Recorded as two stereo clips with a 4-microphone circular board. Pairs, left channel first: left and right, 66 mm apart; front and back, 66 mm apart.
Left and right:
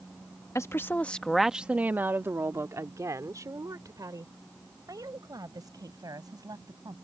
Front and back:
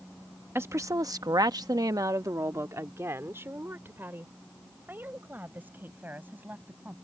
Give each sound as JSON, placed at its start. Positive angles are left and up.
{"t": 0.6, "sound": "a woman speaking", "azimuth_deg": 130}